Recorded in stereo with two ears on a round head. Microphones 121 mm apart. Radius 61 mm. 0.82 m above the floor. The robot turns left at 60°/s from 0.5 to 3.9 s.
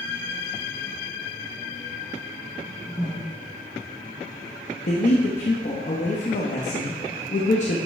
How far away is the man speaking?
About 0.9 m.